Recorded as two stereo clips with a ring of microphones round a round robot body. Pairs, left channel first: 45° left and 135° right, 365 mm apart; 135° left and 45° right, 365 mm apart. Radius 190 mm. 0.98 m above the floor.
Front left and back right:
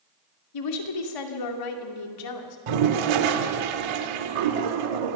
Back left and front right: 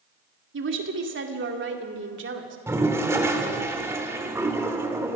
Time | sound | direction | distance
0.5 | a woman speaking | 15° left | 2 m
2.7 | a toilet flushing | 130° right | 1.3 m